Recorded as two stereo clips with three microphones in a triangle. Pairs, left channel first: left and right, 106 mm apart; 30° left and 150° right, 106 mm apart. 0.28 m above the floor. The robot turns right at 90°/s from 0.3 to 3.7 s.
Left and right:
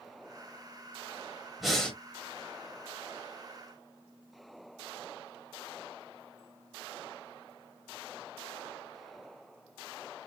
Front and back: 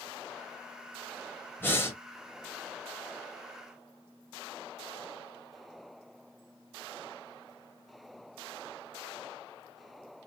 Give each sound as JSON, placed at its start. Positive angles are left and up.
{"t": 1.6, "sound": "breathing", "azimuth_deg": -5, "distance_m": 1.2}